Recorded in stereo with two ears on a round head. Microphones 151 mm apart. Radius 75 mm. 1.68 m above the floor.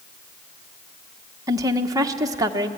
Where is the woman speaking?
20° right (ahead or behind), 1.2 m.